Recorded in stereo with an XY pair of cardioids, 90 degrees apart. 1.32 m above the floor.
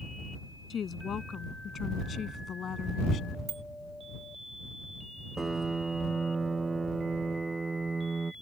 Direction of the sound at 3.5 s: 50° right.